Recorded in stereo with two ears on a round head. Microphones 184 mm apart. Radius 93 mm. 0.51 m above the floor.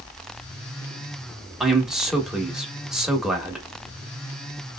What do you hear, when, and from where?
1.6 s a man speaking: centre (ahead or behind), 1.0 m